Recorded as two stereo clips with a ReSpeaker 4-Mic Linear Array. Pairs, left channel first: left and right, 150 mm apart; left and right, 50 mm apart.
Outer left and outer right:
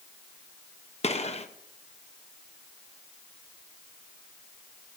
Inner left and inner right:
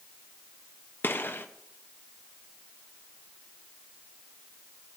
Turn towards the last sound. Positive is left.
turn(degrees=45)  # may be behind; listen again after turning